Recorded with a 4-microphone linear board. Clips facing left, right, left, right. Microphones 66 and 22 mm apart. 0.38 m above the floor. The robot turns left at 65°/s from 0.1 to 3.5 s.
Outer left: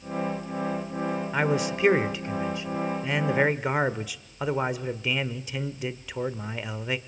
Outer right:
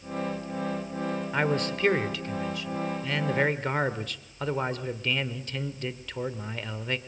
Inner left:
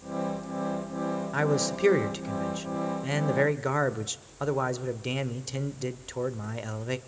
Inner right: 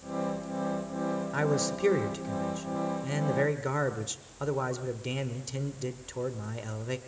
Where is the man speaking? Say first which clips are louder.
Outer left 1 dB, inner left 3 dB; 5° left (ahead or behind), 1.1 m; by 7.0 s 10° left (ahead or behind), 1.1 m.